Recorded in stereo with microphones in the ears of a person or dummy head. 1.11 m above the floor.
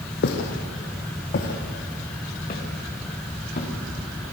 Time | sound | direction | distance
0.2 | footsteps | 55° left (ahead or behind) | 2.5 m